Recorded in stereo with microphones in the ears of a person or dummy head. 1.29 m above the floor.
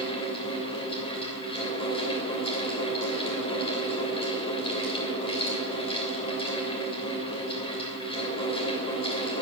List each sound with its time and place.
0.0 s a fan: 20° left (ahead or behind), 3.5 m